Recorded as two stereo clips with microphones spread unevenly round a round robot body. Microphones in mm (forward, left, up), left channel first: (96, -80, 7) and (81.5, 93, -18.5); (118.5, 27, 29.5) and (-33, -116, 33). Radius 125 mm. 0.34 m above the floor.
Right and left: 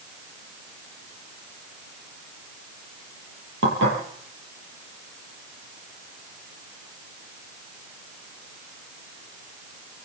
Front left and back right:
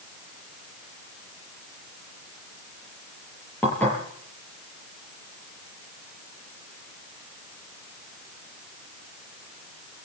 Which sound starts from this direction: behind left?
Dishes clattering, at 3.6 s.